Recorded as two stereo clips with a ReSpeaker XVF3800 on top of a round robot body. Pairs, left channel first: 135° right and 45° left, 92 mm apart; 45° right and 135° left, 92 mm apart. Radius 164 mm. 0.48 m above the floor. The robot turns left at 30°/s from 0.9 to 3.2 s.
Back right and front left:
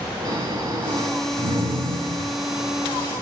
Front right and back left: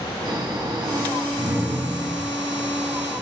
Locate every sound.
0.2 s snoring: 95° left, 7.5 m; by 2.4 s 50° left, 7.5 m